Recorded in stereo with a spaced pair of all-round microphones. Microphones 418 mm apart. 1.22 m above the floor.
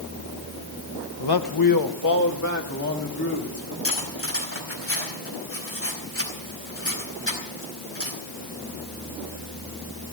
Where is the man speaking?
65° left (ahead or behind), 1.1 m; by 3.7 s 35° left (ahead or behind), 3.5 m.